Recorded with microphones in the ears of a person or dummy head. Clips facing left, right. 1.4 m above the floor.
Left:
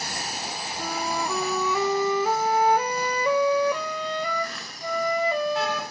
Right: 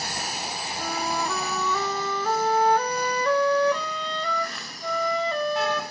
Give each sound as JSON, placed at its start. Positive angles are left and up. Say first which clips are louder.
{"t": 0.8, "sound": "a flute", "louder": "even", "side_deg": 5, "distance_m": 0.7}